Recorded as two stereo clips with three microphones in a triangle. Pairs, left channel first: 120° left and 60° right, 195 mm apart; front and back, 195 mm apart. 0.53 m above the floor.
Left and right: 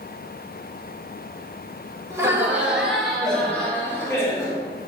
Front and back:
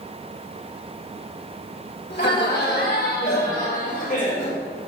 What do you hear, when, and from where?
2.1 s laughter: 15° left, 2.5 m; by 4.6 s 50° left, 3.5 m